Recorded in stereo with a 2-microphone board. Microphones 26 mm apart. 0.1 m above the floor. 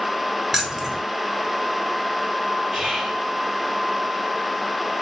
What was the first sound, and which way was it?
Keys jangling, 10° right (ahead or behind).